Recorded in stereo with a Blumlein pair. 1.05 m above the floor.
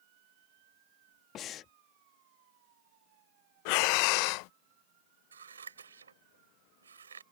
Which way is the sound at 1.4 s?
30° left.